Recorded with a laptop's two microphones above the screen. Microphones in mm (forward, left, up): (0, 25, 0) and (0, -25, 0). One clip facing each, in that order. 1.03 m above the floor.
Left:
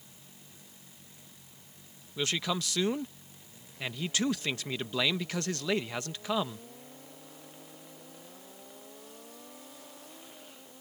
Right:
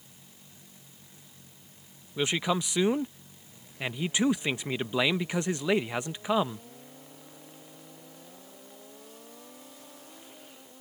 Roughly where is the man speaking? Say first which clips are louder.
Right 4 dB; centre.